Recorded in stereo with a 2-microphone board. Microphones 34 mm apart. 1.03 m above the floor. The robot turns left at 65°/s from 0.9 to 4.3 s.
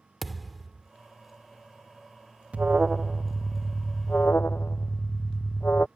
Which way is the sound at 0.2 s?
Centre (ahead or behind).